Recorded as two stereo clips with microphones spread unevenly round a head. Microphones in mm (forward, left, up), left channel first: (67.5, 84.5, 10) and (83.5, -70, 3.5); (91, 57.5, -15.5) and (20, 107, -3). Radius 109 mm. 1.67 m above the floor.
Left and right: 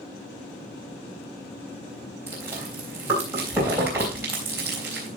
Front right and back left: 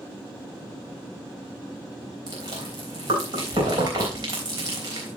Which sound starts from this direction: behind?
Chewing, at 2.3 s.